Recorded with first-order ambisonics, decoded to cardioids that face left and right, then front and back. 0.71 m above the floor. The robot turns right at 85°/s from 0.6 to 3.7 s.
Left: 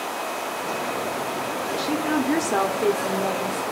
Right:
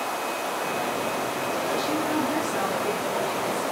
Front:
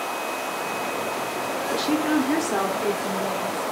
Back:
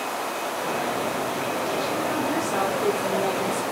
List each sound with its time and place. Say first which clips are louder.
1.7 s a woman speaking: left 4 dB, front 2 dB; 5° left, 1.4 m; by 3.6 s 165° left, 1.4 m